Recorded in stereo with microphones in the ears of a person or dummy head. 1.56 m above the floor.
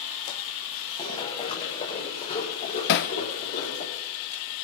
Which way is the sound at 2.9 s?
55° left (ahead or behind).